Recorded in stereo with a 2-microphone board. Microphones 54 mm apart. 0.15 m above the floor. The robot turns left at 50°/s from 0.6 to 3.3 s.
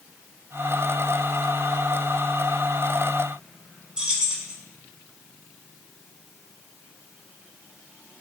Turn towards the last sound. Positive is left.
turn(degrees=-15)  # may be behind; listen again after turning